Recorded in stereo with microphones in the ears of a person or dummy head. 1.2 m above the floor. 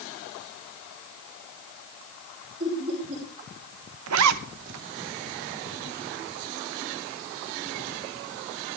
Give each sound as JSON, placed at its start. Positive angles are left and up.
{"t": 2.6, "sound": "laughter", "side_deg": -35, "distance_m": 5.0}
{"t": 4.1, "sound": "a zipper", "side_deg": -80, "distance_m": 0.8}